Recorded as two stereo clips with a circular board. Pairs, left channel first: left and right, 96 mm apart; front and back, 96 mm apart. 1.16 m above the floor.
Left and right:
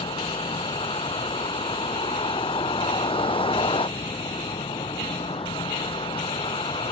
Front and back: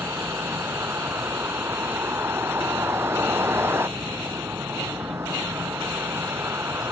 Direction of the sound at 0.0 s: 115° left.